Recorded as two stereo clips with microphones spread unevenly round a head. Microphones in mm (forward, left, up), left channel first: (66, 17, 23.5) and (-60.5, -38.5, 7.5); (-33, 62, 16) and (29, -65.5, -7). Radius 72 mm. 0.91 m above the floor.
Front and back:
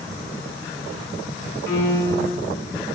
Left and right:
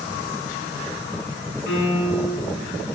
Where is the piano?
100° left, 1.3 m.